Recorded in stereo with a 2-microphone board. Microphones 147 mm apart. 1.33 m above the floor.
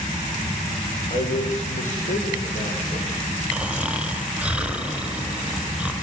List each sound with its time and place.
1.1 s a man speaking: 50° left (ahead or behind), 5.5 m; by 3.3 s 70° left (ahead or behind), 7.5 m
3.5 s snoring: 10° right (ahead or behind), 3 m